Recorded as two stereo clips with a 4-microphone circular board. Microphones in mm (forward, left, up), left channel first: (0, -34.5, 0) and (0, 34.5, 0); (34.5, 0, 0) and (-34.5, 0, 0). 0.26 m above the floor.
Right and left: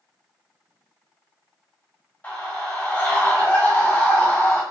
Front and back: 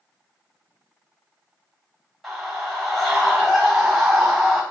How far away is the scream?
About 1.4 m.